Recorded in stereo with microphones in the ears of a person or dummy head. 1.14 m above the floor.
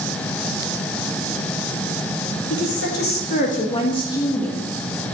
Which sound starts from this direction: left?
A woman speaking, at 2.5 s.